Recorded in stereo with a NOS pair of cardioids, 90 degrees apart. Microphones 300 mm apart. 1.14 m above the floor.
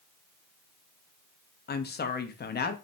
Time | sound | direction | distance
1.7 | a woman speaking | 35° left | 0.8 m